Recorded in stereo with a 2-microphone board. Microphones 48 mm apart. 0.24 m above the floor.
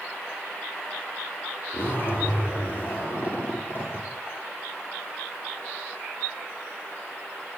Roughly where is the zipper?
Left.